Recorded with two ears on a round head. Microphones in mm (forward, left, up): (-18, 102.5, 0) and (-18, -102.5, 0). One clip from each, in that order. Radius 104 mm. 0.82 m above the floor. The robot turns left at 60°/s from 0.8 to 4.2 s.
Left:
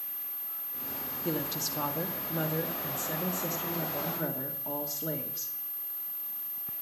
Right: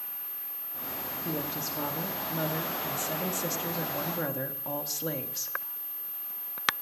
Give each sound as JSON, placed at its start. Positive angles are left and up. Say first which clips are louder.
{"t": 1.2, "sound": "a woman speaking", "louder": "left 2 dB", "azimuth_deg": 105, "distance_m": 1.7}